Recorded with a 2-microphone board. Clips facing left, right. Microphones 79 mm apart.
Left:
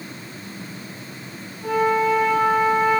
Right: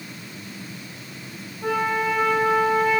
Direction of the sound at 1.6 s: 65° right (ahead or behind).